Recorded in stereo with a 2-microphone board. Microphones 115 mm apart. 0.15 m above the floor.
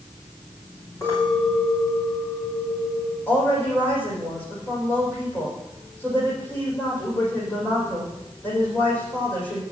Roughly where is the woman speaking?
Centre.